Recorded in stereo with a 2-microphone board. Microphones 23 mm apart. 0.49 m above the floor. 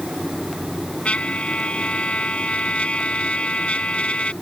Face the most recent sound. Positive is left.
turn(degrees=60)  # may be behind; listen again after turning